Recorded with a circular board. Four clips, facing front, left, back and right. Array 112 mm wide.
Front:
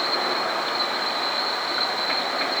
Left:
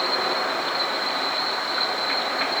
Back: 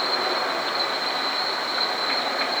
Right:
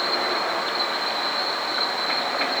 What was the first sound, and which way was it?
Only background noise.